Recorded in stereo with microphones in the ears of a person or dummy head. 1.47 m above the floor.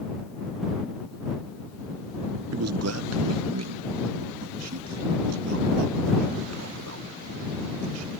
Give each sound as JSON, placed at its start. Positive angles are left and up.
{"t": 2.5, "sound": "a man speaking", "side_deg": -75}